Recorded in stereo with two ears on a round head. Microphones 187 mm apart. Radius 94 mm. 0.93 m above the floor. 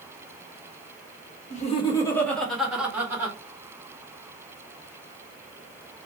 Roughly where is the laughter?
Left.